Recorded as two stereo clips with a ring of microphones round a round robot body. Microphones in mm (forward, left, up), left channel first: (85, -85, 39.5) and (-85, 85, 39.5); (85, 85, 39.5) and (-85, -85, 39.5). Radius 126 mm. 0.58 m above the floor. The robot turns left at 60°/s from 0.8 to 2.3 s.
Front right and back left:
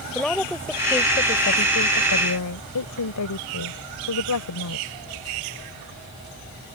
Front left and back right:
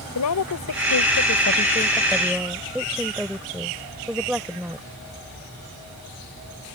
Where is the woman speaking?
40° left; by 4.9 s 50° right.